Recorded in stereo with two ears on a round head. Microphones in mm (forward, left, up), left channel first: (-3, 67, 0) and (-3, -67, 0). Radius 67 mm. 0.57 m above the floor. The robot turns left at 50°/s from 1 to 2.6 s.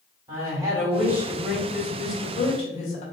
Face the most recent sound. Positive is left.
turn(degrees=125)